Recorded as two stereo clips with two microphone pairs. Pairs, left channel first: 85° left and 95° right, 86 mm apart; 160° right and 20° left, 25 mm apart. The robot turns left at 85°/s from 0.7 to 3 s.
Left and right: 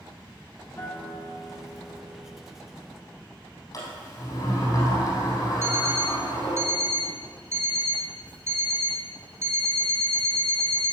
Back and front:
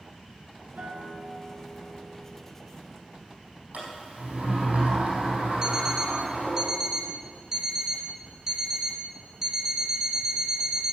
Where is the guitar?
20° left, 3 m; by 2.4 s 115° right, 3 m.